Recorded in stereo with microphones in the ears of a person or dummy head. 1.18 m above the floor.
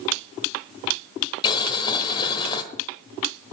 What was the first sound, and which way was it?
Boiling, 25° left (ahead or behind).